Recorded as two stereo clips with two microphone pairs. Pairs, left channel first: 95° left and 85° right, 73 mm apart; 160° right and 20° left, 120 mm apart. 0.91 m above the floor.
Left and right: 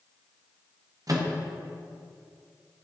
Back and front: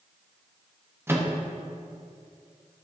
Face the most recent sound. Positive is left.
turn(degrees=-50)